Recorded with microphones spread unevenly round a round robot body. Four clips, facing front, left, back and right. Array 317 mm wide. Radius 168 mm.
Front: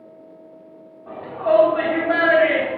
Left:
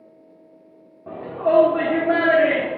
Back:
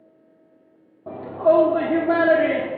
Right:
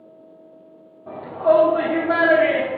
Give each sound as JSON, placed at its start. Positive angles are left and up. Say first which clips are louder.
{"t": 1.1, "sound": "a shout", "louder": "right 3 dB, back 1 dB", "azimuth_deg": 160, "distance_m": 1.1}